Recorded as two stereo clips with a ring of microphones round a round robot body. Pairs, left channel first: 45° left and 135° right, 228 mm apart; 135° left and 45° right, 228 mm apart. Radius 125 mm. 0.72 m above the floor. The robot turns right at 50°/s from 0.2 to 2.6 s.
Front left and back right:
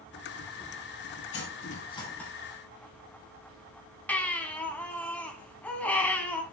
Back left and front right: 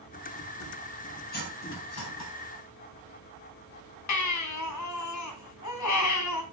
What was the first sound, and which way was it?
Cutlery clinking, 85° left.